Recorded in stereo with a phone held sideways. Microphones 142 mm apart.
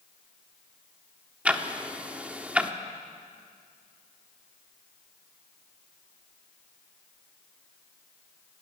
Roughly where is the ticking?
Centre.